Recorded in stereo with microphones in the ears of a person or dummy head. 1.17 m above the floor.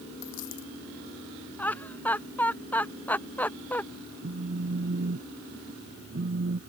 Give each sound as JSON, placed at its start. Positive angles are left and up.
{"t": 0.2, "sound": "a dropped coin", "side_deg": 75}
{"t": 1.6, "sound": "laughter", "side_deg": 15}
{"t": 4.2, "sound": "a phone buzzing", "side_deg": -50}